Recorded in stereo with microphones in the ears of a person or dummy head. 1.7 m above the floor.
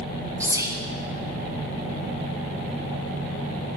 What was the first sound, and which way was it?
Whispering, 10° right (ahead or behind).